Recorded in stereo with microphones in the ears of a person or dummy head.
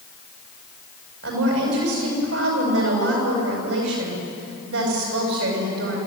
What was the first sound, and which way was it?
A woman speaking, 75° right (ahead or behind).